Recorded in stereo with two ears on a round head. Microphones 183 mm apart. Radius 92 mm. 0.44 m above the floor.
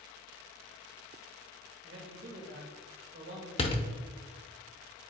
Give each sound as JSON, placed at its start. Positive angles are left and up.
{"t": 1.8, "sound": "a man speaking", "side_deg": -55, "distance_m": 1.3}
{"t": 3.6, "sound": "a door slam", "side_deg": 30, "distance_m": 0.6}